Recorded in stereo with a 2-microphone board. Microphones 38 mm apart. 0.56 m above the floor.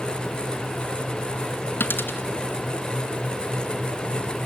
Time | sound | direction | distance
1.8 | a dropped coin | 65° left (ahead or behind) | 2 m